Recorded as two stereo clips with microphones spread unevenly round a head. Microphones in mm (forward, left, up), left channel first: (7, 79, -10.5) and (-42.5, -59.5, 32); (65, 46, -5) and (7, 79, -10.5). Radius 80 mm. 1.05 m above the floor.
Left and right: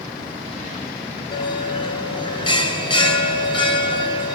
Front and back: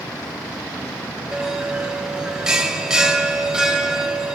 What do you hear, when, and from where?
1.3 s a bell: 80° left, 0.8 m